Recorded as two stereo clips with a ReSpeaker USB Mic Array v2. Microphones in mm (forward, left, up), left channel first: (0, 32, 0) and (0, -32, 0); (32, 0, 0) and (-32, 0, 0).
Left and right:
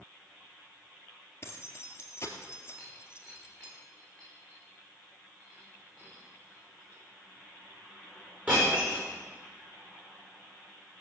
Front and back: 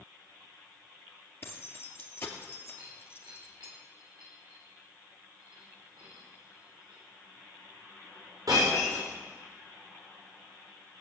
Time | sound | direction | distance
1.4 | keys jangling | 50° left | 2 m
2.8 | breaking glass | 155° right | 7 m